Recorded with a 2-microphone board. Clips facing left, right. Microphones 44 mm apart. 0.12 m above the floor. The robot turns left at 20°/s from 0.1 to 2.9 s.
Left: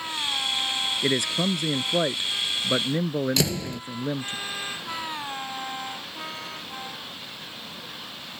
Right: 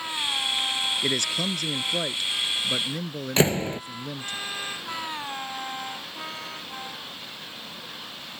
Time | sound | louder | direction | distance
1.0 | a man speaking | left 2 dB | 160° left | ?
3.4 | a door slam | right 4 dB | 35° right (ahead or behind) | ?